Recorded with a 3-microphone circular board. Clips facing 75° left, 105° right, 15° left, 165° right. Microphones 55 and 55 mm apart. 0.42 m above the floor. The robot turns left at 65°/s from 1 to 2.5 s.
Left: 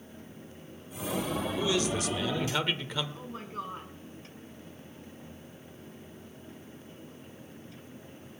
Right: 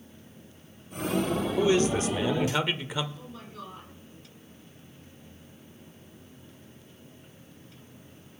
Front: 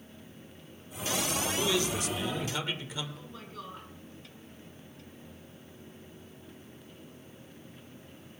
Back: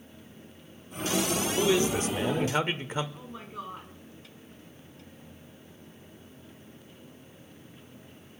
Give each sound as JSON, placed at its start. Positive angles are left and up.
{"t": 1.6, "sound": "a man speaking", "azimuth_deg": -115, "distance_m": 1.1}
{"t": 3.1, "sound": "a woman speaking", "azimuth_deg": 125, "distance_m": 3.5}